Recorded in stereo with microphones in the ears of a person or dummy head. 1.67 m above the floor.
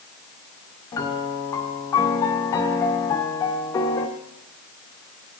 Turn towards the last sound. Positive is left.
turn(degrees=15)  # may be behind; listen again after turning